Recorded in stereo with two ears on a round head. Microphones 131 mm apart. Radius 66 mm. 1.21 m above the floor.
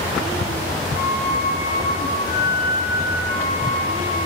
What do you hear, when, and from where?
0.9 s a flute: 55° left (ahead or behind), 6 m